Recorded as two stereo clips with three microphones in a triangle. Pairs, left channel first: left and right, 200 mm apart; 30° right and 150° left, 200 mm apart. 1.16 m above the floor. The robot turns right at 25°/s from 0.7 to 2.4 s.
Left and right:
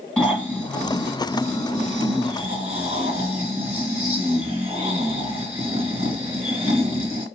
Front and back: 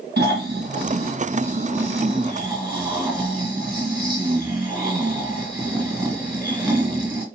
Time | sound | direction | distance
0.2 | snoring | 175° left | 1.4 m